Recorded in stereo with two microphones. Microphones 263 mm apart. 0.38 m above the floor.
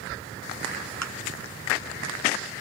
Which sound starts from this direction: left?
A thud, at 1.0 s.